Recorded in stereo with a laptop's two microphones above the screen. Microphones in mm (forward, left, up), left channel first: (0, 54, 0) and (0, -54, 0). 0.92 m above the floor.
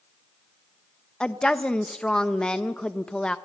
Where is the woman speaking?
5° left (ahead or behind), 0.8 m.